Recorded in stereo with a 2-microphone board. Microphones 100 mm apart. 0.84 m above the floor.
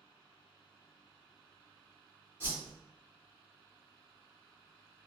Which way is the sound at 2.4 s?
25° right (ahead or behind).